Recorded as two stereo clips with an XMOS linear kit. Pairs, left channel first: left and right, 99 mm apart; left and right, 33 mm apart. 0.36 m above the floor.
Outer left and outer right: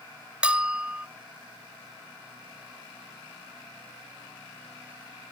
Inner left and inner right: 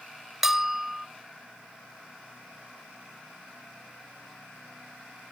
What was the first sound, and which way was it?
A bell, 10° right (ahead or behind).